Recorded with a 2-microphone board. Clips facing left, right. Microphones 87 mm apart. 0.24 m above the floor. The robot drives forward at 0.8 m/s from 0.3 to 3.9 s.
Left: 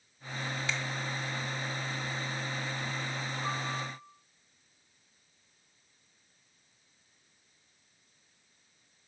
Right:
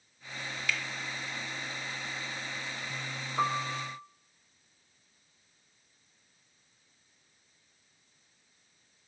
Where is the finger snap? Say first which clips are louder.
Right 3 dB; 25° left (ahead or behind), 1.0 m.